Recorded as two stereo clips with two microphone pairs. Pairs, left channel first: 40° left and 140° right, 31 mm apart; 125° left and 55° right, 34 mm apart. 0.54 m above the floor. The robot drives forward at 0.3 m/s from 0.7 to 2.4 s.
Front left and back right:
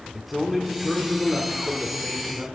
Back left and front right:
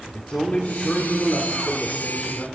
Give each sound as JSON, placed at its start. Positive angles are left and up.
{"t": 0.1, "sound": "a man speaking", "azimuth_deg": 135, "distance_m": 1.7}